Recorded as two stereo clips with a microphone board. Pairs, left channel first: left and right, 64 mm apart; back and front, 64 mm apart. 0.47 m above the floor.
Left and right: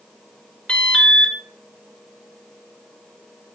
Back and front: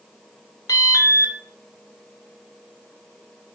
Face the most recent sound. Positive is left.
turn(degrees=160)